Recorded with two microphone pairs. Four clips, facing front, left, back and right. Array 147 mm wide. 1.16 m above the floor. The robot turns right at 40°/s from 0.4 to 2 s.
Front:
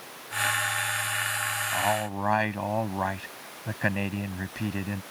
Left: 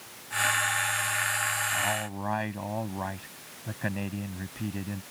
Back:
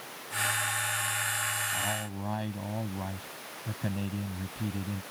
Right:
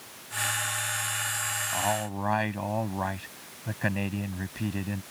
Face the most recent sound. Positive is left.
turn(degrees=-15)